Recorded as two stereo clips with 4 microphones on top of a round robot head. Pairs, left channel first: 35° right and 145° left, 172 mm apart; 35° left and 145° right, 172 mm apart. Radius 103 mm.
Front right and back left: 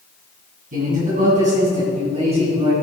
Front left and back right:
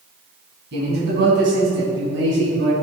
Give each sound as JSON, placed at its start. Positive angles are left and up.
{"t": 0.7, "sound": "a man speaking", "azimuth_deg": -170, "distance_m": 3.5}